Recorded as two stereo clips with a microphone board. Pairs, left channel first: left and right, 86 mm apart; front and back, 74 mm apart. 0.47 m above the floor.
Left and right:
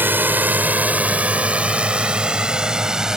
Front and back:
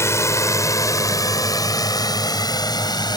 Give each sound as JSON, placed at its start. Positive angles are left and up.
{"t": 0.0, "sound": "a drone", "azimuth_deg": -35}